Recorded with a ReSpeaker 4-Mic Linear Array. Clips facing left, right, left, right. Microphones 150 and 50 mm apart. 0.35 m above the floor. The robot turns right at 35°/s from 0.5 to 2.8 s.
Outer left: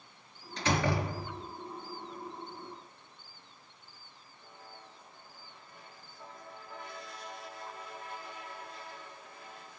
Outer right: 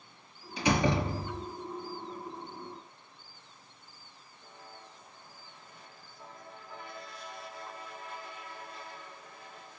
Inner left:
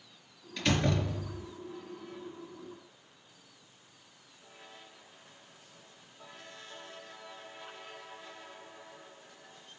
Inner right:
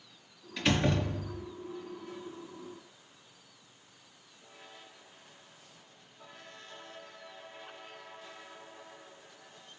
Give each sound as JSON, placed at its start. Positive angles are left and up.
{"t": 0.6, "sound": "a door slam", "azimuth_deg": -170, "distance_m": 4.5}